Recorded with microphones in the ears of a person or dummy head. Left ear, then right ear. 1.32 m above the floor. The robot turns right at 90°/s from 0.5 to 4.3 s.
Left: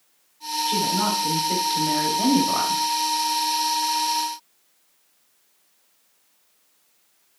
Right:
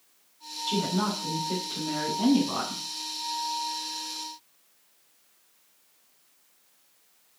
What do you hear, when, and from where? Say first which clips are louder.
0.7 s a woman speaking: left 5 dB; 40° right, 1.4 m; by 2.8 s 155° left, 1.4 m